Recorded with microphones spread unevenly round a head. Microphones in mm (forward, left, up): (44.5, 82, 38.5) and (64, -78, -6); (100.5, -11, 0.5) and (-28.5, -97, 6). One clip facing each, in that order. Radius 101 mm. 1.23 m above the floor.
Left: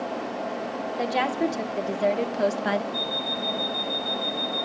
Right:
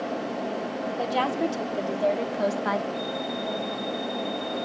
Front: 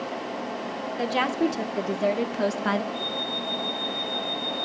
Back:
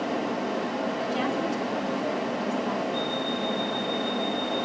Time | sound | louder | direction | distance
1.0 | a woman speaking | left 1 dB, front 7 dB | 20° left | 3 m
2.9 | an alarm clock | right 1 dB, back 4 dB | 155° left | 5 m